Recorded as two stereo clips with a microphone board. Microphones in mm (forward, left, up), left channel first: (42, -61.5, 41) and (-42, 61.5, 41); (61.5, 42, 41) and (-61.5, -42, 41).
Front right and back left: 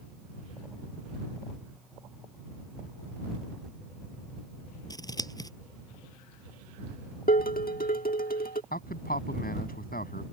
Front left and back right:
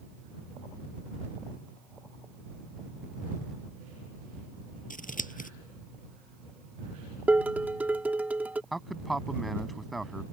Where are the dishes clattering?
65° right.